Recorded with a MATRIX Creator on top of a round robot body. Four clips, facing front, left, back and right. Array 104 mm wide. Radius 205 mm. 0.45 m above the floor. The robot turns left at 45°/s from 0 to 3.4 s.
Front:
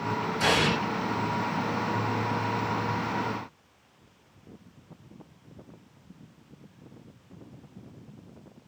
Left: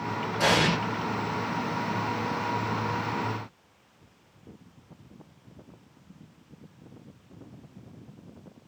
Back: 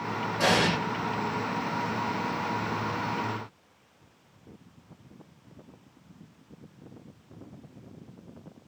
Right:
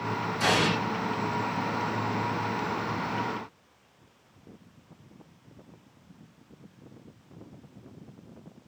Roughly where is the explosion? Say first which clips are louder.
Left 2 dB, back 1 dB; behind left.